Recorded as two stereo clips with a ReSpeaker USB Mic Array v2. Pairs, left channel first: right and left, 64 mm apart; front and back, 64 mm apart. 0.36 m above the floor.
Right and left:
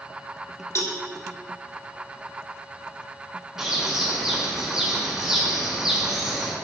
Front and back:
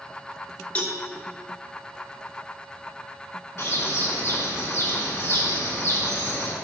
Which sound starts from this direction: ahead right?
A cowbell, at 0.8 s.